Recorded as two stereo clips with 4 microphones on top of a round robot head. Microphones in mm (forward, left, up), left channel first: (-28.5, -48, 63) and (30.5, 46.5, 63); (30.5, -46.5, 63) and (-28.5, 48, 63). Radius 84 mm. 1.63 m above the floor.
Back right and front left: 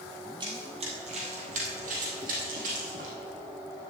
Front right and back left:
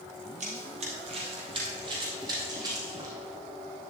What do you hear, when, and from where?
0.4 s running footsteps: 105° left, 2 m; by 3.1 s 60° left, 3.5 m